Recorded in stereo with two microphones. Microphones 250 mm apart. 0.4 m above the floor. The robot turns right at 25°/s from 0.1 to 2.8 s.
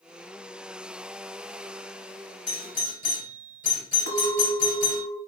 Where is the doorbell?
30° left (ahead or behind), 2 m.